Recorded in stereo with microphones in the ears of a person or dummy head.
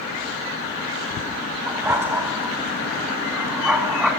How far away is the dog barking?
About 2 m.